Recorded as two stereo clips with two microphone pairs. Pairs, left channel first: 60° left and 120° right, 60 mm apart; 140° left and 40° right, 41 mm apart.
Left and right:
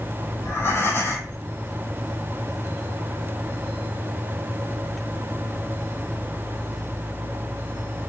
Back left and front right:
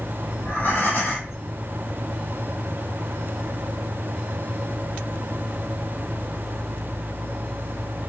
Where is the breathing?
100° left, 3 m.